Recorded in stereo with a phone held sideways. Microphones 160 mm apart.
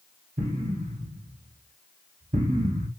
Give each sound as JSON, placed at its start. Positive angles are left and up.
{"t": 0.4, "sound": "an explosion", "side_deg": -60, "distance_m": 0.9}